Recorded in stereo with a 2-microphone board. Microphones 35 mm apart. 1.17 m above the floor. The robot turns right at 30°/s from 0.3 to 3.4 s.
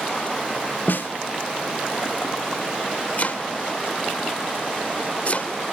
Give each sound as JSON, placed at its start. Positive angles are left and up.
{"t": 0.9, "sound": "a snare drum", "side_deg": 70, "distance_m": 1.2}
{"t": 3.2, "sound": "chopping", "side_deg": 50, "distance_m": 1.4}